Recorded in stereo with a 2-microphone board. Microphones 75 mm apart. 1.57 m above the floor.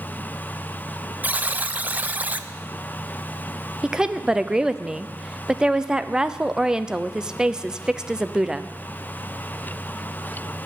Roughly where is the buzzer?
Right.